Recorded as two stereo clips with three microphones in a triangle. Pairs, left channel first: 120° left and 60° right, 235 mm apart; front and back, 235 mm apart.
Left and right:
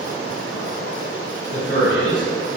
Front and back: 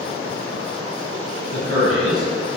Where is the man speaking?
140° left, 1.3 m.